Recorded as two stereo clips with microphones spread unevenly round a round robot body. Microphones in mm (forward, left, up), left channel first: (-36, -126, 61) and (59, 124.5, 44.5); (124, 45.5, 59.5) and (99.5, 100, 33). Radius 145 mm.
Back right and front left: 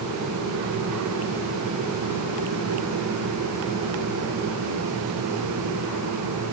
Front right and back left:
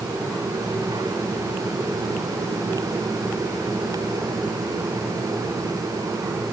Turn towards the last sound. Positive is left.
No sound to turn to.